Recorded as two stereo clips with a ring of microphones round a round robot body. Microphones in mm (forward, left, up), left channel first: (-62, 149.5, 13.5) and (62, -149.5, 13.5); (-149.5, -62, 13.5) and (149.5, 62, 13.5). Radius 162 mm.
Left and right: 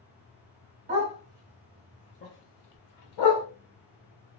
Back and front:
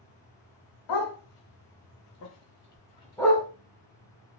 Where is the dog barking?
135° right, 1.2 m; by 3.5 s 115° left, 1.0 m.